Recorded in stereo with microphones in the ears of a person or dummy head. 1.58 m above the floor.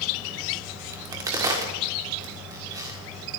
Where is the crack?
25° right (ahead or behind), 1.6 m.